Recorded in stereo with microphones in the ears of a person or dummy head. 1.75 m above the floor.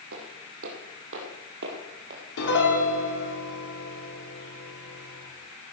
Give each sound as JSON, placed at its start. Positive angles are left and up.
{"t": 0.1, "sound": "footsteps", "side_deg": -70, "distance_m": 5.0}
{"t": 2.4, "sound": "a piano", "side_deg": 80, "distance_m": 4.5}